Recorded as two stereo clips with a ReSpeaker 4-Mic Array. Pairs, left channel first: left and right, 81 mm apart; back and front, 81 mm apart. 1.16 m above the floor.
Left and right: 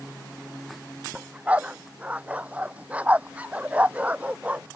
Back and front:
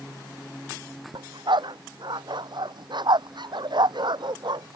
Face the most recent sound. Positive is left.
turn(degrees=-20)